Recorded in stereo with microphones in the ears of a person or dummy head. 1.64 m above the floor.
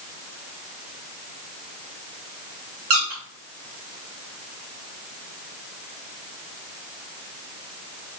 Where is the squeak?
45° right (ahead or behind), 1.2 m.